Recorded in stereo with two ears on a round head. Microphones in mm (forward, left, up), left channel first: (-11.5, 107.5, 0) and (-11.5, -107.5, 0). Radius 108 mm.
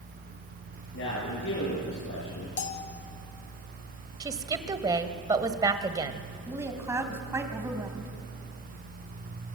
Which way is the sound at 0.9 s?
55° left (ahead or behind).